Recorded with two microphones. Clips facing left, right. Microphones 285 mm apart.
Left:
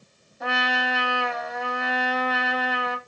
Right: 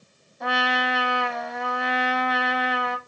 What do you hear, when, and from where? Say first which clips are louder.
0.4 s a trumpet: right 2 dB; centre (ahead or behind), 0.9 m